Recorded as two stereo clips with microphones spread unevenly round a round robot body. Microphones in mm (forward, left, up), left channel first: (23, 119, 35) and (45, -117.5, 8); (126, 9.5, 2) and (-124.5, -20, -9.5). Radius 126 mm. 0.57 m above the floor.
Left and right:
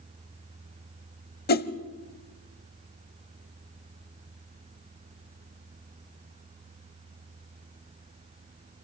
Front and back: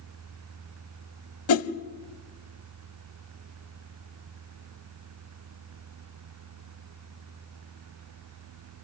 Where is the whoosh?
45° left, 1.0 m.